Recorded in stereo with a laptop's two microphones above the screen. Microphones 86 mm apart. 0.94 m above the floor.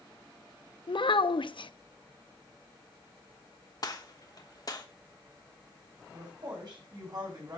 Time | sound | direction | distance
0.9 | a child speaking | 70° left (ahead or behind) | 0.5 m
3.8 | a gunshot | 45° left (ahead or behind) | 1.1 m
6.1 | a woman speaking | 55° right (ahead or behind) | 5.5 m